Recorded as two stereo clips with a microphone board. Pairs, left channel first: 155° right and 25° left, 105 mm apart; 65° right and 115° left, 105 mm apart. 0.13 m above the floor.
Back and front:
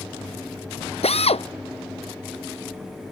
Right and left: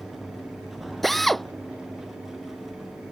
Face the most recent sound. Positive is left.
turn(degrees=-155)